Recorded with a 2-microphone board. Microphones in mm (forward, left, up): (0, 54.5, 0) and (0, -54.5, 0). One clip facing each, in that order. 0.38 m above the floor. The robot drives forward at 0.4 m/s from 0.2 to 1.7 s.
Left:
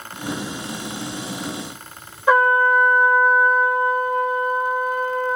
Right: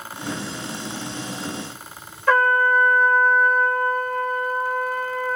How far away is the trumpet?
About 1.4 m.